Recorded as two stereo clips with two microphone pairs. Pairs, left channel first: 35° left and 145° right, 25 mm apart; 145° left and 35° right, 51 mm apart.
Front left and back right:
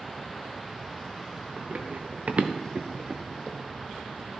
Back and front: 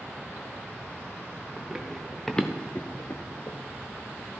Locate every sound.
1.6 s running footsteps: 115° right, 2 m; by 3.6 s 140° left, 1.4 m